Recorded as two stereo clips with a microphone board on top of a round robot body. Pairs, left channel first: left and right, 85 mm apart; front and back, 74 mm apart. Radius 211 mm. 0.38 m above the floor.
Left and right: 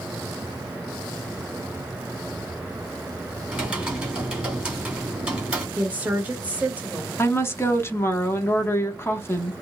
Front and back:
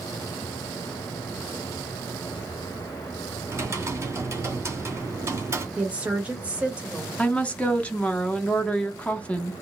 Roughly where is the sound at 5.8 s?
Behind right.